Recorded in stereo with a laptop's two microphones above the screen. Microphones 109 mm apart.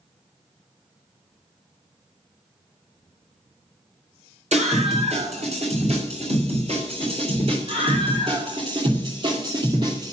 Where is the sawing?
No sawing in this recording.